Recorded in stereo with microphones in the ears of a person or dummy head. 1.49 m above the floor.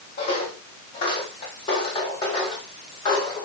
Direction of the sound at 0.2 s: 50° left (ahead or behind).